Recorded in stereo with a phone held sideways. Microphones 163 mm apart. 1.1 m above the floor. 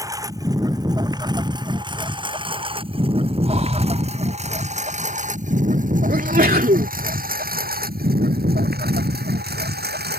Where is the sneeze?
65° right (ahead or behind).